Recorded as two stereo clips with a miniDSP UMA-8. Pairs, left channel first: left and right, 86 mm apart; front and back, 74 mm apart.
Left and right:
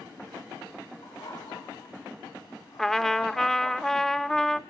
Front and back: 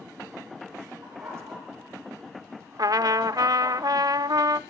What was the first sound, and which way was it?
A dog barking, 130° left.